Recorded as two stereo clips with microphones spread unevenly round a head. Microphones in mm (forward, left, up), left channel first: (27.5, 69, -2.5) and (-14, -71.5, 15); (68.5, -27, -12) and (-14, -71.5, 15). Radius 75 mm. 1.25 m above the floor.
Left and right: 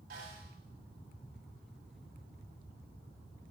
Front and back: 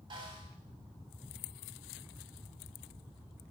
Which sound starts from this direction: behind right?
A snare drum, at 0.1 s.